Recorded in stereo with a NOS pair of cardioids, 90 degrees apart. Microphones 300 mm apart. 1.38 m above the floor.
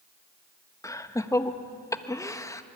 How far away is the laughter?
About 1.4 m.